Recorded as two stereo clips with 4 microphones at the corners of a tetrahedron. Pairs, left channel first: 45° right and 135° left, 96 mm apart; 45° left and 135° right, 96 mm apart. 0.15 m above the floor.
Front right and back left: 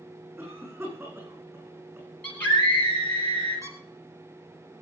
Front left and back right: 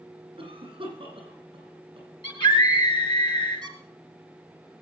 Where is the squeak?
170° right, 2.5 m.